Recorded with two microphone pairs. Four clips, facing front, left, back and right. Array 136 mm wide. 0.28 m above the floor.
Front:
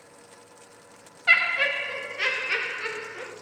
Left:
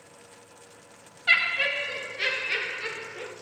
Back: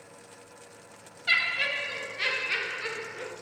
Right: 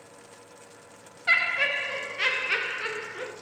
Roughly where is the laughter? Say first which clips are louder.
Even, front 6 dB; ahead.